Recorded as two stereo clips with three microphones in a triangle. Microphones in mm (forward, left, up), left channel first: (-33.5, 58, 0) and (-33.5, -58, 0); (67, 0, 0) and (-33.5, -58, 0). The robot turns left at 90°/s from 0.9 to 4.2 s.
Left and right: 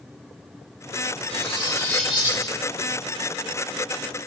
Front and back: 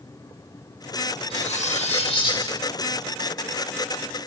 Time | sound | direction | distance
1.3 | cutlery clinking | 70° left | 5 m